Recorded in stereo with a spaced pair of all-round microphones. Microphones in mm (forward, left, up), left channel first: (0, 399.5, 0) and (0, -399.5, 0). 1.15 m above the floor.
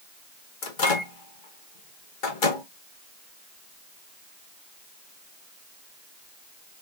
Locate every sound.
0.6 s a microwave: 80° left, 1.4 m